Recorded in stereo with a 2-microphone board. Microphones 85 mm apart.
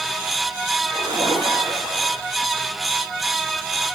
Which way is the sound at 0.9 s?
75° right (ahead or behind).